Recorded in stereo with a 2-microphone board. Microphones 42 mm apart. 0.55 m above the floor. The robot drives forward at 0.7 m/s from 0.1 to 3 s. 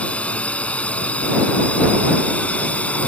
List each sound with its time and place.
0.0 s a drone: 35° left (ahead or behind)